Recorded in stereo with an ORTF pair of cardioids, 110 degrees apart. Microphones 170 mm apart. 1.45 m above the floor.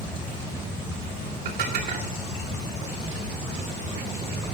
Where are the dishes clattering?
65° right, 2.5 m.